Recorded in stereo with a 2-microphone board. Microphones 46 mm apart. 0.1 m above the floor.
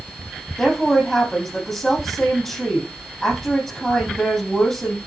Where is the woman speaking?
10° left (ahead or behind), 4 m.